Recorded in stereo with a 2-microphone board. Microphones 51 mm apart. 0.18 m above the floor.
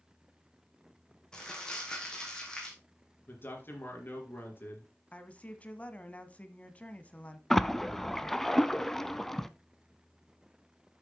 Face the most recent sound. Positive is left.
turn(degrees=5)  # may be behind; listen again after turning